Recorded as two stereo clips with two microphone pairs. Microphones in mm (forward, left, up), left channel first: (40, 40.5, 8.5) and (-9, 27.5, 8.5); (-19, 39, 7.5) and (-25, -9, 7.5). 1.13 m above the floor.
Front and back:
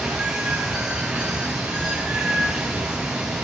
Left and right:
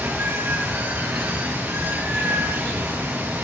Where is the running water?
90° right, 7 m.